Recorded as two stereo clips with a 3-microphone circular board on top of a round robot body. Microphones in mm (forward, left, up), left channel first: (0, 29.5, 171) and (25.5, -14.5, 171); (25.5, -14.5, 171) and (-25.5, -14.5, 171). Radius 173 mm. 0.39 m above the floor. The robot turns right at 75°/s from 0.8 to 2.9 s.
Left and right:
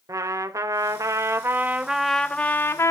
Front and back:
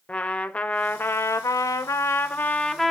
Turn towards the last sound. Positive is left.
turn(degrees=90)